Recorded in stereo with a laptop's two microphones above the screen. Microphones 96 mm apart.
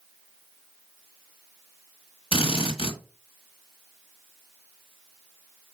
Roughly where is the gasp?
No gasp in this recording.